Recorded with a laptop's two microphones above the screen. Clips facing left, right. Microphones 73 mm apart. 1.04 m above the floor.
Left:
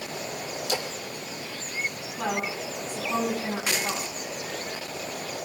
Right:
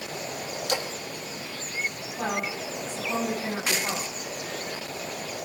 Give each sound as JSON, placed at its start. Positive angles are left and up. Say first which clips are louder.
{"t": 0.7, "sound": "a splash", "louder": "right 1 dB", "side_deg": -60, "distance_m": 2.0}
{"t": 2.2, "sound": "a woman speaking", "louder": "even", "side_deg": -25, "distance_m": 9.5}